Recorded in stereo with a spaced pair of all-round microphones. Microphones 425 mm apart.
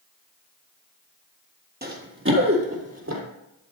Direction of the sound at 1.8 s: 25° right (ahead or behind).